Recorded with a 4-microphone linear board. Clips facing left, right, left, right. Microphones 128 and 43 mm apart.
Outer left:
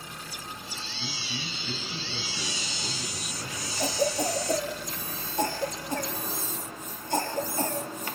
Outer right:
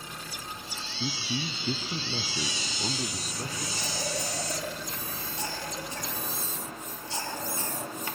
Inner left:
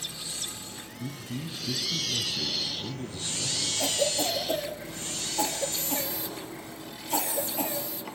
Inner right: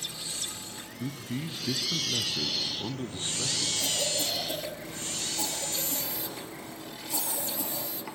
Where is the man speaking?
35° right (ahead or behind), 1.6 m.